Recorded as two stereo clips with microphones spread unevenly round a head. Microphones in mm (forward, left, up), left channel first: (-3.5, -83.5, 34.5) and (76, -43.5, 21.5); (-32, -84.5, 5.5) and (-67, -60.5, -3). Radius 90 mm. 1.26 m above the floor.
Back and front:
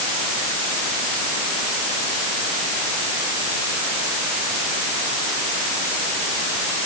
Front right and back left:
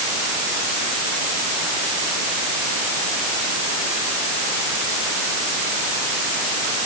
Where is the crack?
No crack in this recording.